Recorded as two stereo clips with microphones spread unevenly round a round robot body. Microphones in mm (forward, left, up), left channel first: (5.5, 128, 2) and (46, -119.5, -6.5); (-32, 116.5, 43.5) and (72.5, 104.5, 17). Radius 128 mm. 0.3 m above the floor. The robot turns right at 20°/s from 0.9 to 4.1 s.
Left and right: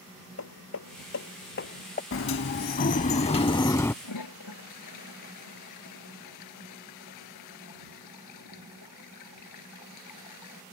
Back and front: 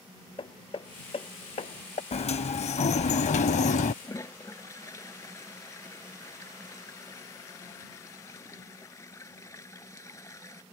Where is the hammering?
140° left; by 2.0 s 160° left.